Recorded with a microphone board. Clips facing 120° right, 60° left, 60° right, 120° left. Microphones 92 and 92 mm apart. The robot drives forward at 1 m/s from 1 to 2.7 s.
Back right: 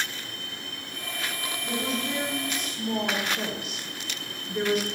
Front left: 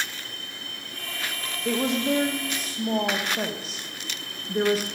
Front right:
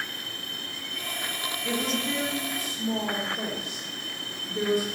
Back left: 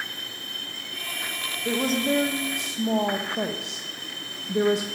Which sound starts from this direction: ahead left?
A woman speaking, at 1.6 s.